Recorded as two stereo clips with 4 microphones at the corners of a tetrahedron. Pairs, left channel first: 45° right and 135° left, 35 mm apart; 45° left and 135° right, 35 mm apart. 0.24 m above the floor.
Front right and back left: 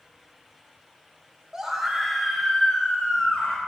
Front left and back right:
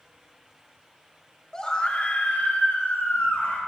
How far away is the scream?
About 1.0 m.